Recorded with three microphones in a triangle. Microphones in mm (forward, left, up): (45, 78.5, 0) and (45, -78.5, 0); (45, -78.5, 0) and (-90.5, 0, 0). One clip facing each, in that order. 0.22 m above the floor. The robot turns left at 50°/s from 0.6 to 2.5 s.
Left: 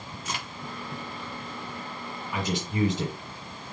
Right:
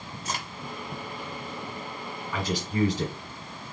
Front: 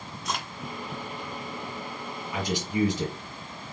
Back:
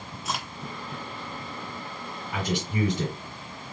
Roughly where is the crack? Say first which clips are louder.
Right 2 dB, even; behind right.